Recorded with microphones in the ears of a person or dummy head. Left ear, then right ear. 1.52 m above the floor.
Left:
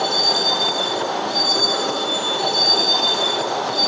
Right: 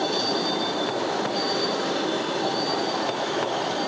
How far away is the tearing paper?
No tearing paper in this recording.